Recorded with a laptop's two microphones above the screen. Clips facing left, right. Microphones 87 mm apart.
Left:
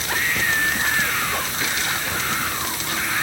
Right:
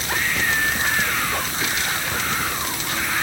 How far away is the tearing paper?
No tearing paper in this recording.